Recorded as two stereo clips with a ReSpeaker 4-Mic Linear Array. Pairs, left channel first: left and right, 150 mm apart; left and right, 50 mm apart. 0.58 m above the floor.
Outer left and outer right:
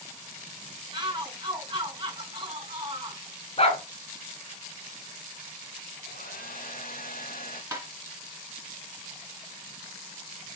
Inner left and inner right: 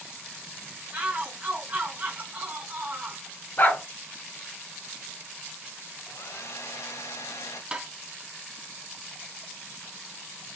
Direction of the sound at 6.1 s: 75° left (ahead or behind).